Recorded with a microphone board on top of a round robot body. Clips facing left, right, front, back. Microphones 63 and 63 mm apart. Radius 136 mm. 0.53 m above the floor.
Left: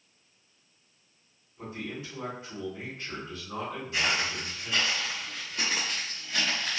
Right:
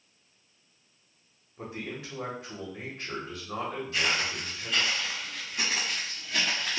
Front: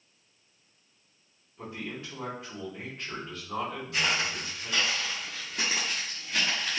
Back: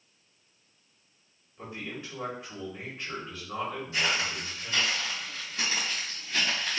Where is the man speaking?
95° right, 1.4 m.